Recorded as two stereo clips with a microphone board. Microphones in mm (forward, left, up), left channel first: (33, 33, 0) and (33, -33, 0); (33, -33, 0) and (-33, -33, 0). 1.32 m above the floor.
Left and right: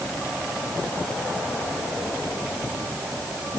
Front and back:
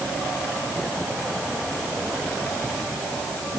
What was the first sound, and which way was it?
Only background noise.